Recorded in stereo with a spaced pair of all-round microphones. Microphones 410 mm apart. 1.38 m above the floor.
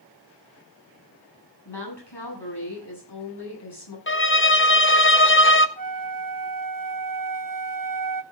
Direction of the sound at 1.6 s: 75° left (ahead or behind).